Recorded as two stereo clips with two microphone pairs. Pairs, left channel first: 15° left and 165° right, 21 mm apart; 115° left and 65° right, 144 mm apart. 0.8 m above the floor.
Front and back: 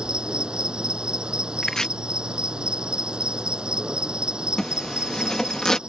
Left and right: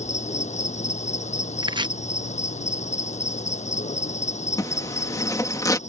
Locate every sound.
0.0 s an insect: 150° left
1.6 s chopping: 30° right
4.6 s a zipper: 60° left